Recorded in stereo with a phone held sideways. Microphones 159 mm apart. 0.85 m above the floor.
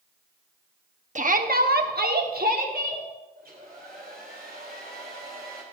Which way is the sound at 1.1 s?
50° right (ahead or behind).